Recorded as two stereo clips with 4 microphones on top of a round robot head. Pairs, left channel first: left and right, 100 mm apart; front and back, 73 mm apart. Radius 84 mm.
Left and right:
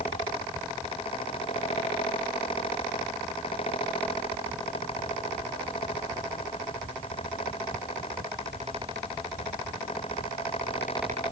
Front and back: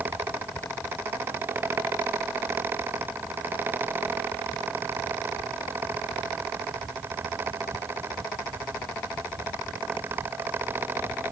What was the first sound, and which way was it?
Only background noise.